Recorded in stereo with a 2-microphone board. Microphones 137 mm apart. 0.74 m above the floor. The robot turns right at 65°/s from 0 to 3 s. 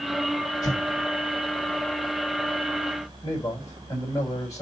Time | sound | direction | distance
0.6 | an explosion | 25° left (ahead or behind) | 2.5 m
3.2 | a man speaking | 25° left (ahead or behind) | 4 m